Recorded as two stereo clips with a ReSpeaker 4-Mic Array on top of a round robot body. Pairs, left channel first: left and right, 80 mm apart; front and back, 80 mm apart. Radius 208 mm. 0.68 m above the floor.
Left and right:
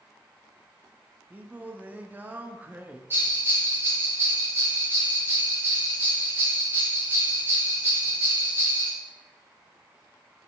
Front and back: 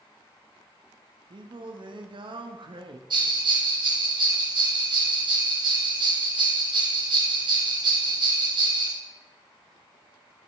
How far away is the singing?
About 0.7 m.